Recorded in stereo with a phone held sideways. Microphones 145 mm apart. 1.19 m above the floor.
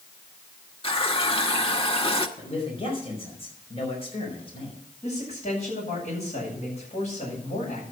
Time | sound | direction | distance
0.8 | a running tap | 40° left (ahead or behind) | 1.3 m
2.4 | a man speaking | 40° left (ahead or behind) | 5 m
5.0 | a man speaking | 50° left (ahead or behind) | 8.5 m